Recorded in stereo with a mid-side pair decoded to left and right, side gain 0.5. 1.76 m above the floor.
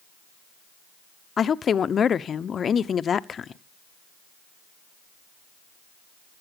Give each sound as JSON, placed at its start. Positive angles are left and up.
{"t": 1.4, "sound": "a woman speaking", "azimuth_deg": 45, "distance_m": 0.9}